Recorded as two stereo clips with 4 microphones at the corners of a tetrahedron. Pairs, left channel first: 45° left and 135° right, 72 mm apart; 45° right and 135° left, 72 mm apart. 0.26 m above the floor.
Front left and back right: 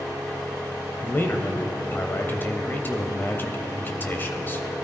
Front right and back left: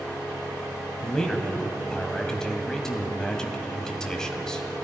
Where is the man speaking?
30° left, 1.3 m.